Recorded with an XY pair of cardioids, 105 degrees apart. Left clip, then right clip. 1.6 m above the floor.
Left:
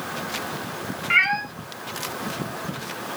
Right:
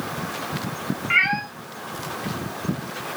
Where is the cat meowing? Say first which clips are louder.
Even; 5° left, 3.5 m.